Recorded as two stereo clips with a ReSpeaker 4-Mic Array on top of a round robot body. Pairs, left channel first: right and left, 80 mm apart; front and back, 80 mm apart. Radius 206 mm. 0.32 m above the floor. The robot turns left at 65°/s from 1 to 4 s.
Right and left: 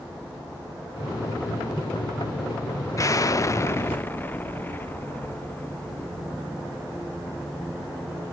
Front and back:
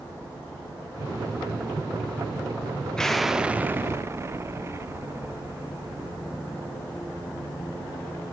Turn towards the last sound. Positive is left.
turn(degrees=-145)